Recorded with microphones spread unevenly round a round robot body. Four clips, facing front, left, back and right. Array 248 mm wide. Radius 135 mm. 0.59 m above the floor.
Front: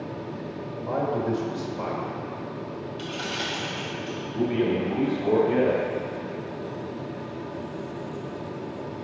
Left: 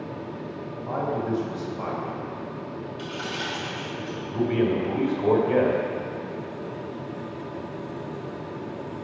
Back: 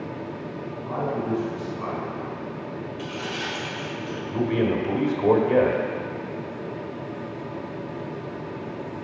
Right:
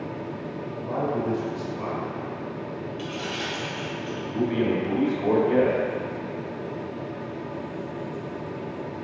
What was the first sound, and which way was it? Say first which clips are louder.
A man speaking: right 1 dB, front 1 dB; 10° right.